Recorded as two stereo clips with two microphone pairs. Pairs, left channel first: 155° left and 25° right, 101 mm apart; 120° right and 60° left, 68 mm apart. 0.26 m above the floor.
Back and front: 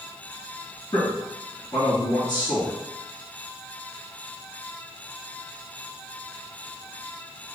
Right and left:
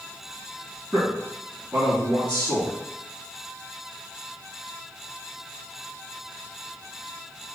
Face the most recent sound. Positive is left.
turn(degrees=120)